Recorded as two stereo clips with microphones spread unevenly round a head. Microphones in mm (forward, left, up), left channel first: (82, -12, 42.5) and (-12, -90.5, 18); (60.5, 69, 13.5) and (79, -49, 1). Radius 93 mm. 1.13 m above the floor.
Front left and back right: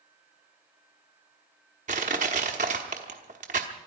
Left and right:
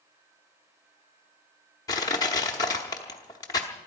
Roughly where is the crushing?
Behind.